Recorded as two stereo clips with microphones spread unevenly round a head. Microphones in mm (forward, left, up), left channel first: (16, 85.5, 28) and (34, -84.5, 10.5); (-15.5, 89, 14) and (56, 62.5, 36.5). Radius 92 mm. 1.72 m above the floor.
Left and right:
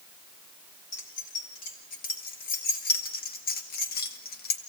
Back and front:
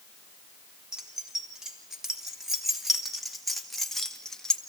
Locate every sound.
0.9 s keys jangling: 55° left, 4 m; by 4.6 s 70° left, 1.9 m